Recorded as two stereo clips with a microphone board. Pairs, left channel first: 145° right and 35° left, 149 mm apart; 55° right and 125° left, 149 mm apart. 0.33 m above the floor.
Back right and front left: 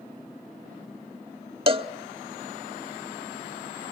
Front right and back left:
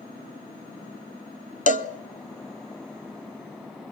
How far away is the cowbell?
About 0.6 m.